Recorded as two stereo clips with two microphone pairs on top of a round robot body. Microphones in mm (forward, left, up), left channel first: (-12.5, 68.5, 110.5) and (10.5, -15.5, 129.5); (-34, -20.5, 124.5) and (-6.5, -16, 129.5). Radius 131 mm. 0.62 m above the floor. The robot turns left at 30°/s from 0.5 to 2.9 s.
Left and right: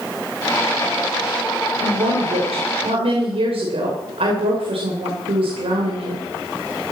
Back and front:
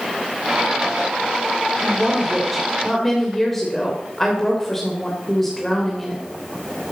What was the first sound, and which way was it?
A woman speaking, 60° right.